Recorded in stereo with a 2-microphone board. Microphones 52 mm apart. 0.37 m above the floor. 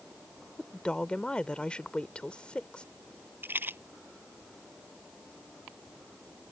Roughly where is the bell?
I don't hear a bell.